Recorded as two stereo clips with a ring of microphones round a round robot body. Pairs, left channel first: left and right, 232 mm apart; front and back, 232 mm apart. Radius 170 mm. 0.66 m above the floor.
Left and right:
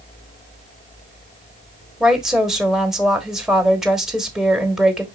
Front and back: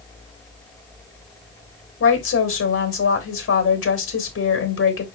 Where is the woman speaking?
Straight ahead, 1.3 m.